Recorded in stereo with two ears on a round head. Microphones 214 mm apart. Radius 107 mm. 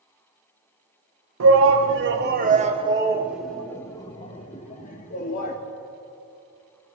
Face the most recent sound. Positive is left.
turn(degrees=40)  # may be behind; listen again after turning